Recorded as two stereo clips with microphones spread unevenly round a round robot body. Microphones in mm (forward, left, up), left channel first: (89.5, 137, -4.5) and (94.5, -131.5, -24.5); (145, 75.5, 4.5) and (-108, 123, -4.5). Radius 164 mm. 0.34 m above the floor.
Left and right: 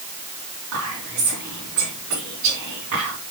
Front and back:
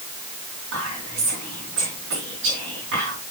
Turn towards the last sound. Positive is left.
turn(degrees=-140)